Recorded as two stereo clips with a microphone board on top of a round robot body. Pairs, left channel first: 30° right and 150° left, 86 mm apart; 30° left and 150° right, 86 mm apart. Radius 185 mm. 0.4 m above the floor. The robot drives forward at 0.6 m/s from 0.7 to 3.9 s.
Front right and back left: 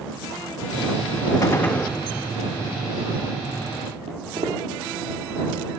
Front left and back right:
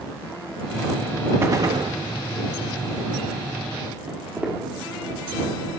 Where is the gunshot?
85° right, 0.5 m; by 2.0 s 120° right, 0.6 m.